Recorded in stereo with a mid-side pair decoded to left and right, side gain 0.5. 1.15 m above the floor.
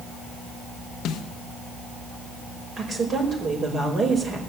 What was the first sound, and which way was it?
A snare drum, 70° left.